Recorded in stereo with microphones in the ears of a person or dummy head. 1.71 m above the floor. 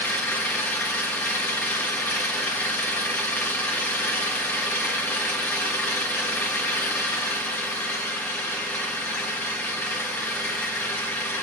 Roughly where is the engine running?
Centre.